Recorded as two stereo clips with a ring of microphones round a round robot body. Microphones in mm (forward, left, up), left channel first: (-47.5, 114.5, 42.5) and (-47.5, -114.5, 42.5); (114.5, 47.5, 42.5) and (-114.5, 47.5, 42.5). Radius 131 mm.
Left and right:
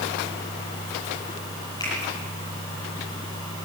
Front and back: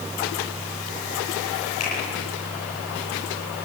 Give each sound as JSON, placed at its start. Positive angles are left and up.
{"t": 1.8, "sound": "a finger snap", "azimuth_deg": 15, "distance_m": 10.0}